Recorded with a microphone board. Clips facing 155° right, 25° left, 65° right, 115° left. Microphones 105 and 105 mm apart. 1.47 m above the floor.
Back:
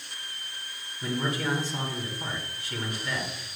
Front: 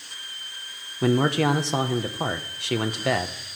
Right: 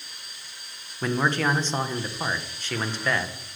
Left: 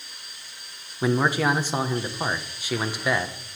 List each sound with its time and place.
1.0 s a man speaking: 35° left, 1.0 m